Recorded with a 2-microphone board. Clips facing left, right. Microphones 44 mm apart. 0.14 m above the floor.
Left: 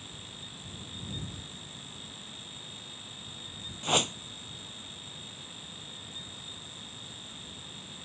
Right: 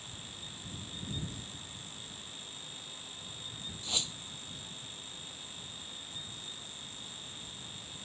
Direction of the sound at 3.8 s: 55° left (ahead or behind).